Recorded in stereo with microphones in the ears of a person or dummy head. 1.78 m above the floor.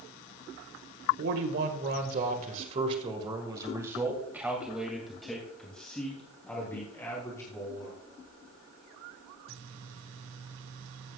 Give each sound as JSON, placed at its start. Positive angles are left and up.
{"t": 1.2, "sound": "a man speaking", "side_deg": -70, "distance_m": 1.9}